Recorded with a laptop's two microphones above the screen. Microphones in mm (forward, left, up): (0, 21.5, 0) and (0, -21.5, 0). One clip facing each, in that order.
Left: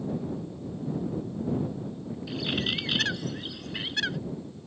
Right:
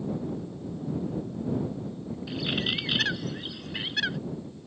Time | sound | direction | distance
2.3 | a bird | 5° right (ahead or behind) | ?